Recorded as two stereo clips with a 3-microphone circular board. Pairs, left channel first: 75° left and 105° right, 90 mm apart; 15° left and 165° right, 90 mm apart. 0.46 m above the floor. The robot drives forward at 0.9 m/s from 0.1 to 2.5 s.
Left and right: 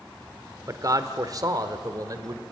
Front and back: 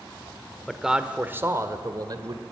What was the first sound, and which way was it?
A man speaking, 75° right.